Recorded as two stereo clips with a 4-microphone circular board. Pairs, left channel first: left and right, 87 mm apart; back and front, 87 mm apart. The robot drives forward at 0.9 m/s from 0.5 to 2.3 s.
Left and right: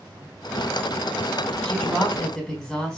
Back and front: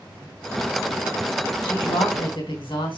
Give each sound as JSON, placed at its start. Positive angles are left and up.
{"t": 1.6, "sound": "a woman speaking", "azimuth_deg": 170, "distance_m": 3.5}